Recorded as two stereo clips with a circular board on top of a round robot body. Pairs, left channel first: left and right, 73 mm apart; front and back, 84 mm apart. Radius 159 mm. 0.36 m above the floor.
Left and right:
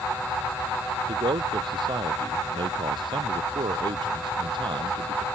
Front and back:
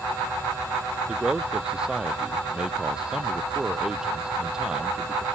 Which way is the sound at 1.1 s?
95° right.